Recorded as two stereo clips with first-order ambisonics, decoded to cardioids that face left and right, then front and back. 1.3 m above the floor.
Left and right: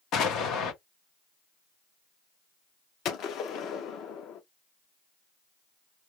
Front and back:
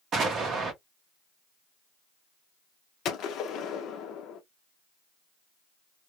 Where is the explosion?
125° left, 0.8 m.